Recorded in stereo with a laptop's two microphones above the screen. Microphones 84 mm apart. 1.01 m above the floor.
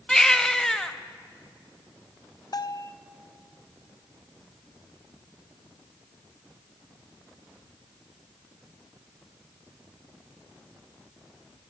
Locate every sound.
0.1 s a baby crying: 5° left (ahead or behind), 0.7 m
2.5 s a bell: 50° left (ahead or behind), 0.6 m